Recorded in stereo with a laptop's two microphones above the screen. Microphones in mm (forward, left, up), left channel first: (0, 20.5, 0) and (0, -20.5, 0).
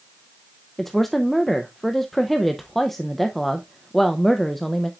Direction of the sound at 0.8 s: 5° left (ahead or behind).